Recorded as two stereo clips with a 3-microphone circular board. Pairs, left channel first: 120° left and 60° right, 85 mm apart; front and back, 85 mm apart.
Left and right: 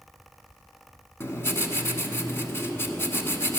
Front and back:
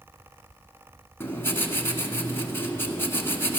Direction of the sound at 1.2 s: 60° left.